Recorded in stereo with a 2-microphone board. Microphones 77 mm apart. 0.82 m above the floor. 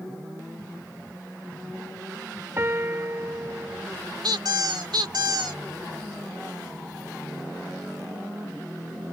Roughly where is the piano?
Right.